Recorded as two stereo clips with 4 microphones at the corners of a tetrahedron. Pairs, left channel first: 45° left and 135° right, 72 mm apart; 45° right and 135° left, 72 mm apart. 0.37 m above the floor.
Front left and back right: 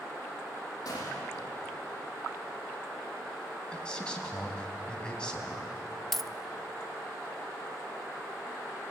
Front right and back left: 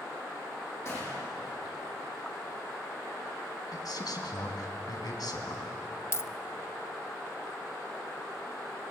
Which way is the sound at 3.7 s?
30° right.